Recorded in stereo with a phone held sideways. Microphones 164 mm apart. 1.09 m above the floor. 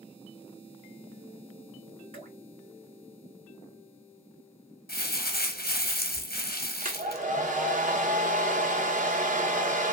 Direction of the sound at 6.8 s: 55° right (ahead or behind).